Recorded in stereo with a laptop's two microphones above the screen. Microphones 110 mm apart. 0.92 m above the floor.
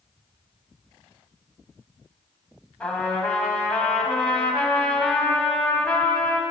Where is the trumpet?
10° left (ahead or behind), 0.8 m.